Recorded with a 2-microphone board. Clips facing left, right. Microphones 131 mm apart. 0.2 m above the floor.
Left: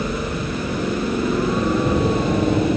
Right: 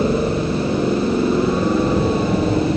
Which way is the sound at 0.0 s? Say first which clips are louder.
Right 7 dB; 30° right (ahead or behind).